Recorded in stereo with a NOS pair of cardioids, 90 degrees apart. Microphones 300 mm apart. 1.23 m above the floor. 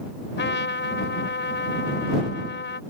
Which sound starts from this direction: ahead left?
A trumpet, at 0.4 s.